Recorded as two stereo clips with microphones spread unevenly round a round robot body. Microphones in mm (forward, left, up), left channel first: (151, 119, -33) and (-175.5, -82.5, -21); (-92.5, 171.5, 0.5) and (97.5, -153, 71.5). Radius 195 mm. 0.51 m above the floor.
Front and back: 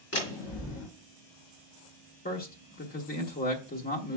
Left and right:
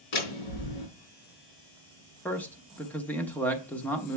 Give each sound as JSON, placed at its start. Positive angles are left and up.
{"t": 0.1, "sound": "a door slam", "azimuth_deg": 90, "distance_m": 4.5}
{"t": 2.2, "sound": "a man speaking", "azimuth_deg": 65, "distance_m": 1.1}